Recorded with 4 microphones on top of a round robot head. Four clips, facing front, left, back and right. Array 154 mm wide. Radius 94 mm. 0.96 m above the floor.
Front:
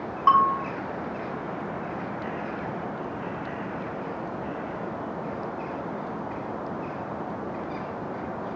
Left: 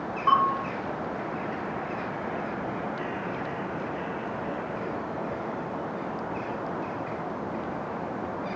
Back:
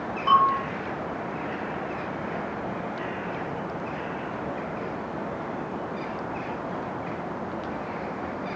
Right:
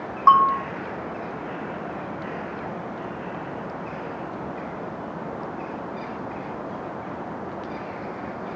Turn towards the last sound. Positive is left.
turn(degrees=-60)